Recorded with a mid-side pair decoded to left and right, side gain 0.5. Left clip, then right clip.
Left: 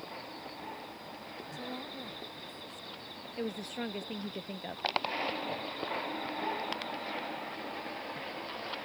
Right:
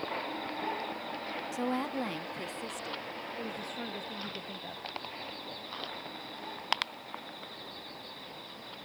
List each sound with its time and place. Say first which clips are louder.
1.5 s a woman speaking: right 9 dB; 60° right; by 3.3 s 75° right
3.4 s a woman speaking: left 5 dB; 30° left